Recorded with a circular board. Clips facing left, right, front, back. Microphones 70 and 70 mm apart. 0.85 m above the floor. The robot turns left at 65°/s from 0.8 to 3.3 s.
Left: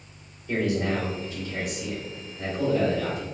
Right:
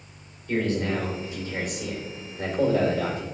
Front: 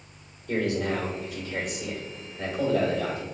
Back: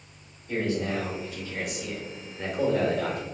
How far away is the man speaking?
About 2.5 m.